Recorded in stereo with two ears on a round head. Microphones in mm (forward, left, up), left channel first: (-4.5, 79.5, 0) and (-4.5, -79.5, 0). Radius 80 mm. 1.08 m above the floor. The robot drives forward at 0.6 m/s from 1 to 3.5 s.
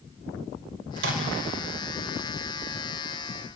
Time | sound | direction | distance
1.0 | a microwave | 75° right (ahead or behind) | 4 m